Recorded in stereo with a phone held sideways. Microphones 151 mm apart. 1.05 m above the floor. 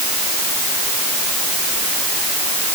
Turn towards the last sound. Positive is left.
No sound to turn to.